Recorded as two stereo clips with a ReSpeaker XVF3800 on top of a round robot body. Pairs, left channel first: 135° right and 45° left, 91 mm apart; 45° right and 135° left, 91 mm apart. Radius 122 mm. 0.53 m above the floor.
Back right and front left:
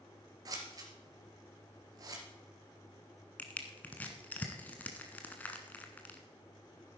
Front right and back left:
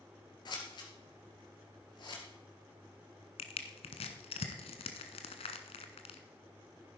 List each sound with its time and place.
0.5 s scissors: 5° right, 3 m
3.4 s crushing: 60° right, 1.1 m